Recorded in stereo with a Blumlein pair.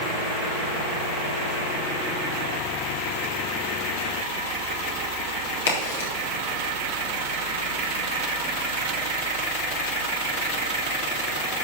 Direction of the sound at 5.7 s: 60° left.